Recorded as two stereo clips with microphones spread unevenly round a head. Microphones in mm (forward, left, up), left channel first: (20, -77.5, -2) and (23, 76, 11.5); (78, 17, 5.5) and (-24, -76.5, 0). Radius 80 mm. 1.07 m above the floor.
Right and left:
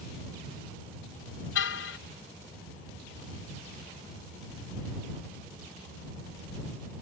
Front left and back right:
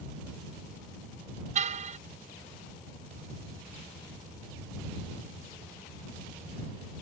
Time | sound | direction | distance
1.6 | a car horn | 100° right | ?